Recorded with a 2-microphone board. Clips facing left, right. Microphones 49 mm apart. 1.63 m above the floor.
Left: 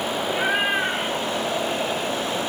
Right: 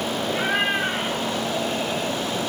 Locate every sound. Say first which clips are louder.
0.3 s a cat meowing: left 1 dB; 15° left (ahead or behind), 5.5 m; by 2.2 s 5° left (ahead or behind), 4 m